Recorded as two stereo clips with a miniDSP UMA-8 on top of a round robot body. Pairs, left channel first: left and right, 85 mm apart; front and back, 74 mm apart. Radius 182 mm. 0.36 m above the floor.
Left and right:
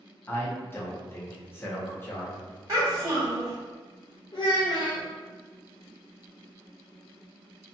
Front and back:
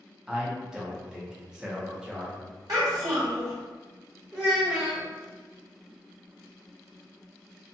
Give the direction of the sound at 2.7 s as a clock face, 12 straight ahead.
5 o'clock.